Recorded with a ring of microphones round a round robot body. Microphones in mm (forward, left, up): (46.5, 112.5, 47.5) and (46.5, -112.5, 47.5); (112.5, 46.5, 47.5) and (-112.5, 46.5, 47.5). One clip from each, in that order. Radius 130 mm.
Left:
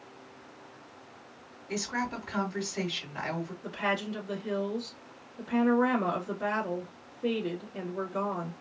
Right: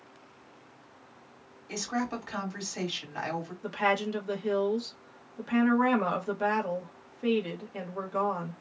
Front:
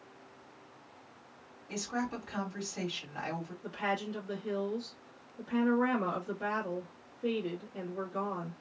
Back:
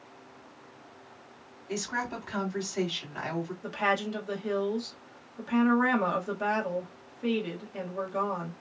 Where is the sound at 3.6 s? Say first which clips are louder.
Right 4 dB, back 6 dB; 125° right, 1.1 m.